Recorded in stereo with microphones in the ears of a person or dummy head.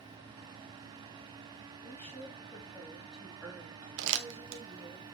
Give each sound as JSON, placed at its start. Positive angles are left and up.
{"t": 1.8, "sound": "a woman speaking", "side_deg": 10, "distance_m": 3.0}
{"t": 4.0, "sound": "crumpling", "side_deg": -75, "distance_m": 1.1}